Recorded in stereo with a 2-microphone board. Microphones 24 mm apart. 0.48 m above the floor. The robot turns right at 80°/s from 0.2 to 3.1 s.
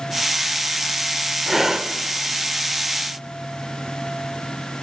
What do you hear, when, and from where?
1.5 s breathing: 175° right, 0.5 m; by 1.9 s 140° right, 0.5 m